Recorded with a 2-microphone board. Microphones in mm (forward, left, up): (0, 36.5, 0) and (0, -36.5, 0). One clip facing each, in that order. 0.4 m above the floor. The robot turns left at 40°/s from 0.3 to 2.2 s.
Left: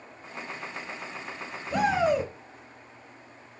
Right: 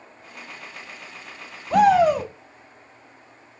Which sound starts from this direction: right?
A shout, at 1.7 s.